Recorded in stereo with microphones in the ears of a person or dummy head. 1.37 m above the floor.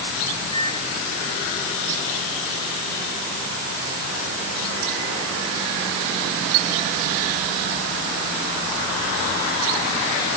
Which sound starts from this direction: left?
A microwave, at 0.5 s.